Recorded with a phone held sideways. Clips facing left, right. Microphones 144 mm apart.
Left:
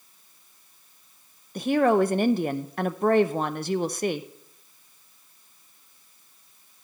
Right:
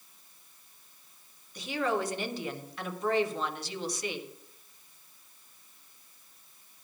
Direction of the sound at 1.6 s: 55° left (ahead or behind).